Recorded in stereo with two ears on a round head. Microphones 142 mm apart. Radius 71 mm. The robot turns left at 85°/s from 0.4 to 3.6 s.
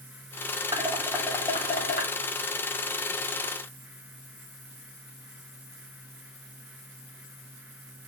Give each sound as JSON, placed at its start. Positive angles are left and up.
{"t": 0.7, "sound": "dishes clattering", "side_deg": -35, "distance_m": 2.0}